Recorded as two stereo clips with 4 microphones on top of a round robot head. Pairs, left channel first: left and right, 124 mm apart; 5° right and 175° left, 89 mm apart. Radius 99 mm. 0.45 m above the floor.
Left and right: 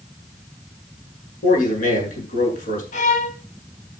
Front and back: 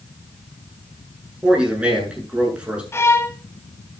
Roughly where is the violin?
Ahead left.